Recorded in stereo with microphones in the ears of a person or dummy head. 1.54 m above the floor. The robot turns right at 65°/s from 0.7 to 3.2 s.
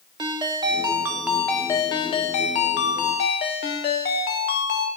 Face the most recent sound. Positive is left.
turn(degrees=125)